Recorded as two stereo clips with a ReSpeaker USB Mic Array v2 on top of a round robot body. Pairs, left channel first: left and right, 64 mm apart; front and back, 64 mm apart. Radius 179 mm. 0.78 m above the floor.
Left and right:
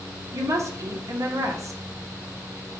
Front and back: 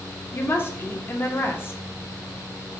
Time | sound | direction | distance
0.3 | a woman speaking | 50° right | 1.1 m